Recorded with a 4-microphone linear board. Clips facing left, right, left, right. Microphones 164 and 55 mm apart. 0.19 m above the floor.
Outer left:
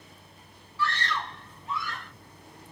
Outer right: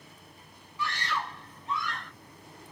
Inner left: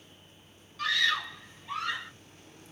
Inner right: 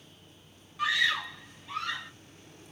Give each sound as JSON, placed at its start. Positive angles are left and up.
{"t": 0.8, "sound": "a scream", "side_deg": -15, "distance_m": 1.0}